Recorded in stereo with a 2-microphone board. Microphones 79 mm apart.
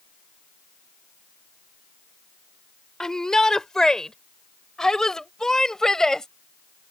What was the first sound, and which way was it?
A shout, 10° left (ahead or behind).